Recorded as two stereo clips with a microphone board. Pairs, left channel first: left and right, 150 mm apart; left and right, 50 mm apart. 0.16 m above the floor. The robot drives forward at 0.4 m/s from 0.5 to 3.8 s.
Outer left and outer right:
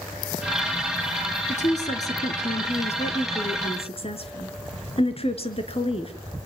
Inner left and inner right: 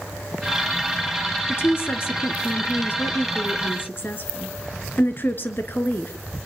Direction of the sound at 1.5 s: 50° left (ahead or behind).